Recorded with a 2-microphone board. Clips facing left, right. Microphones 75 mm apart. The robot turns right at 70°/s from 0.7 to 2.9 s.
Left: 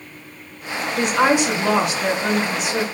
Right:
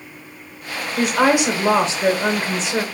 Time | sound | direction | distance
1.0 | a woman speaking | straight behind | 1.2 m